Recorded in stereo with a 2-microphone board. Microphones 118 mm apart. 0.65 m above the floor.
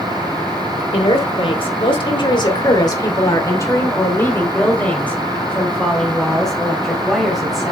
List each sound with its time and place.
0.9 s a woman speaking: 60° left (ahead or behind), 2.5 m; by 7.7 s 5° right (ahead or behind), 4 m